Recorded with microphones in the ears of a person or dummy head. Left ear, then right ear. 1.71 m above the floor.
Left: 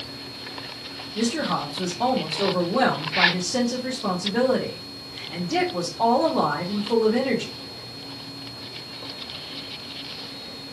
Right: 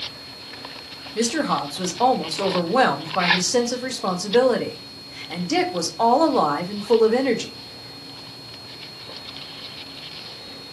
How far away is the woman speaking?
About 1.1 m.